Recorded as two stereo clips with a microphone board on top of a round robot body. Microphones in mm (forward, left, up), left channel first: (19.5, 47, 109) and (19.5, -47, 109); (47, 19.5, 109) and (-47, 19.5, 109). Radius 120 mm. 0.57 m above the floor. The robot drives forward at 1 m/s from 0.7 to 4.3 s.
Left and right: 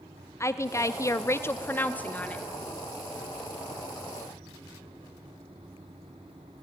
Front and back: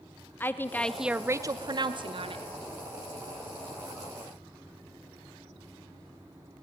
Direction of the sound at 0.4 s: 55° left.